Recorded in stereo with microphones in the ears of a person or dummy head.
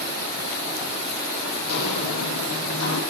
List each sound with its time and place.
1.7 s footsteps: 60° left (ahead or behind), 4 m; by 3.0 s 70° left (ahead or behind), 5 m